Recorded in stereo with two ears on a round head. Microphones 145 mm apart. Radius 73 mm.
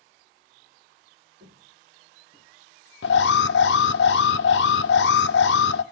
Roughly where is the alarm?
Left.